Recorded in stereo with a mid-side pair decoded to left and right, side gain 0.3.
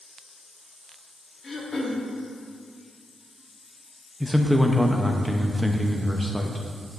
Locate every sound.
1.4 s throat clearing: 55° left, 1.2 m
4.2 s a man speaking: 5° left, 0.6 m